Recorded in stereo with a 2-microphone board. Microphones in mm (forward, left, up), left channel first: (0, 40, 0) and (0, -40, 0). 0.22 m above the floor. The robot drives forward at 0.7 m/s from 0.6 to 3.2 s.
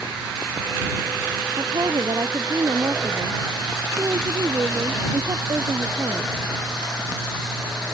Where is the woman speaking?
55° right (ahead or behind); by 6.3 s 50° right (ahead or behind).